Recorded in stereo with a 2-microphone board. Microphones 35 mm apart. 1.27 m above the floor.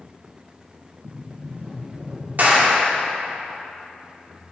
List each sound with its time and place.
1.0 s a sliding door: 65° right (ahead or behind), 2.5 m
2.4 s a clap: 60° right (ahead or behind), 2 m